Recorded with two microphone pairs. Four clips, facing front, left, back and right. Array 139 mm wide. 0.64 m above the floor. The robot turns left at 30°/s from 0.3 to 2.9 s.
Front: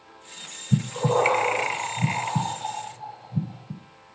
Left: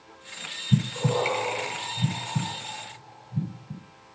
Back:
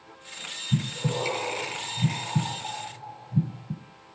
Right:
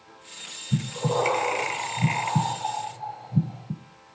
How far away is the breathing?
About 1.6 m.